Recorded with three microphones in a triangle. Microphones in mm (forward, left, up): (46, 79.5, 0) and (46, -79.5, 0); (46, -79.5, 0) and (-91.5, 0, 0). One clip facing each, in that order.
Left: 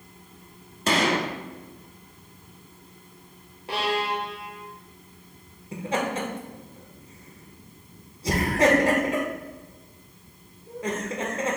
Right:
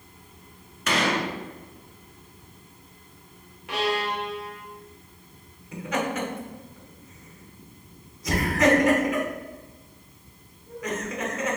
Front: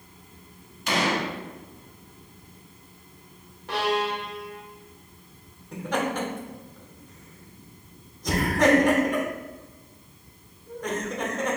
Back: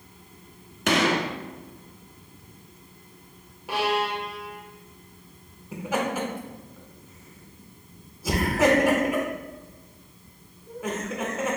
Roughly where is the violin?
Left.